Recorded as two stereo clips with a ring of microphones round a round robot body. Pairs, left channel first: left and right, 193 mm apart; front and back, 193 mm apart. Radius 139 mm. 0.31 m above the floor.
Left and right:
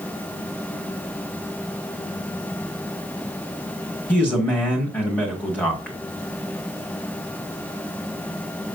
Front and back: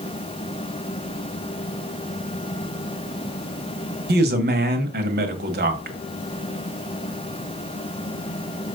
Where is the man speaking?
170° left, 1.6 m.